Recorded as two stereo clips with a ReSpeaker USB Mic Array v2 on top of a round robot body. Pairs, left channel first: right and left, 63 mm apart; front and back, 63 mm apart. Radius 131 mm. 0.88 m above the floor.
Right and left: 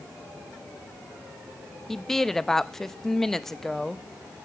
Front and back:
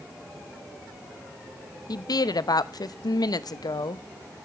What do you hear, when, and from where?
1.9 s a woman speaking: 5° right, 0.8 m